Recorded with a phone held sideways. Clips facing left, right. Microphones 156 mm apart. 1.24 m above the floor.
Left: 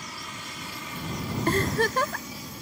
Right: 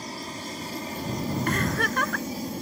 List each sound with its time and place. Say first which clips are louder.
0.0 s an aircraft: right 6 dB; 35° right (ahead or behind); by 2.6 s 45° right (ahead or behind)
1.5 s a giggle: left 7 dB; 30° left (ahead or behind)